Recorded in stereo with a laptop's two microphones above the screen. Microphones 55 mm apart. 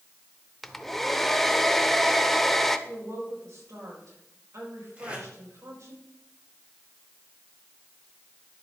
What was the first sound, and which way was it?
A hair dryer, 5° left (ahead or behind).